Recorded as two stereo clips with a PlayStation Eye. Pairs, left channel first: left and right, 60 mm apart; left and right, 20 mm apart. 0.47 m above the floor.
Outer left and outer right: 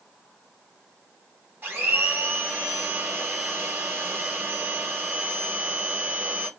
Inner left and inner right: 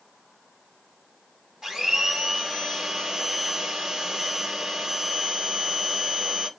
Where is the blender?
30° right (ahead or behind), 1.0 m.